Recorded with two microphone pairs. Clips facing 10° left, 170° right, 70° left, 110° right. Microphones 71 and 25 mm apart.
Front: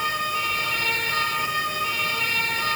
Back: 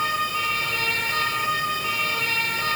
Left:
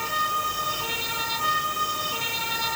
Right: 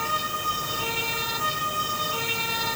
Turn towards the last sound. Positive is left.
No sound to turn to.